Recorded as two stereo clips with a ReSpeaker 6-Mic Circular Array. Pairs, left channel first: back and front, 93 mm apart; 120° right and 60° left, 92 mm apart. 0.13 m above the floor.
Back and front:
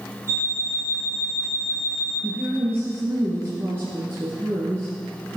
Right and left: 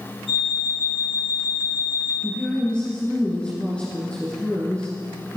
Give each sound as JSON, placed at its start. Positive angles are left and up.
{"t": 0.3, "sound": "an alarm clock", "azimuth_deg": -130, "distance_m": 4.0}
{"t": 2.2, "sound": "a woman speaking", "azimuth_deg": -50, "distance_m": 2.0}